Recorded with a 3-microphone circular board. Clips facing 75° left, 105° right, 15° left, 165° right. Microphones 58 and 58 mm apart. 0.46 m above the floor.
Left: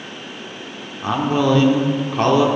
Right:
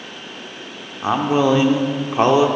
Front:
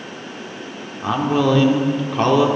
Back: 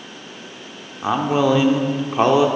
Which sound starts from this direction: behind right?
A man speaking, at 1.0 s.